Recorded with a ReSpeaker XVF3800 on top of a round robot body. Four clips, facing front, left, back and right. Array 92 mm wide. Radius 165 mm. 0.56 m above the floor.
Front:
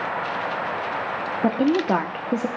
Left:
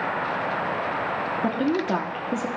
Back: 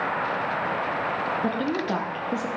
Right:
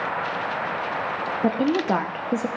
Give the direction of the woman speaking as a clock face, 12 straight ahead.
1 o'clock.